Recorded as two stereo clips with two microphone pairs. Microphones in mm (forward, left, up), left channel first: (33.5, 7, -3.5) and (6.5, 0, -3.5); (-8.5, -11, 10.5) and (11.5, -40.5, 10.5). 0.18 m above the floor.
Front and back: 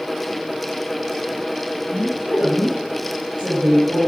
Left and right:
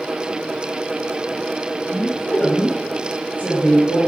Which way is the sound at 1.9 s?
175° left.